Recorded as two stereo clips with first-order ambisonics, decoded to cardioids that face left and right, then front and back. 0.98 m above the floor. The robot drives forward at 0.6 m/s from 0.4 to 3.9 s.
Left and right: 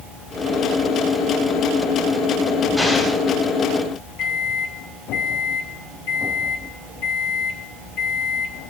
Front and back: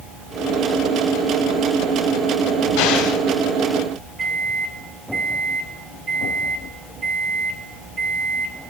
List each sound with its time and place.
2.8 s an explosion: 5° left, 2.5 m; by 3.2 s 10° left, 2 m
4.2 s a microwave: 120° left, 1.9 m